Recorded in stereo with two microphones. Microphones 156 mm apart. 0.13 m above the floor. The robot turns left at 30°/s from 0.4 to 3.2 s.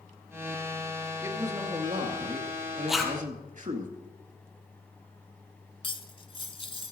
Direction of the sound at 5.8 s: 35° left (ahead or behind).